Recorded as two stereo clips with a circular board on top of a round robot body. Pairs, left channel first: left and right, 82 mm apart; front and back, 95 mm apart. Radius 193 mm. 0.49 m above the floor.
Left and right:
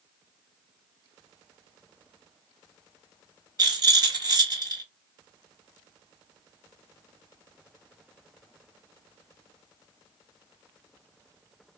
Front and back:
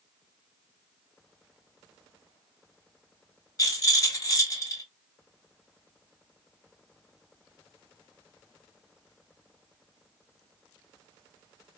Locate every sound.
3.6 s a rattle: 55° right, 2.5 m